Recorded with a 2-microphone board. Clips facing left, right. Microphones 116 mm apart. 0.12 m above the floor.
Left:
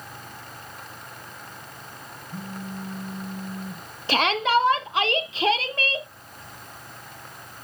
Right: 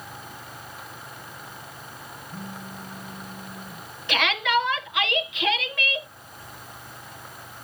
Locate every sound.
2.3 s a phone buzzing: 10° left (ahead or behind), 2 m
4.1 s a shout: 35° left (ahead or behind), 1.4 m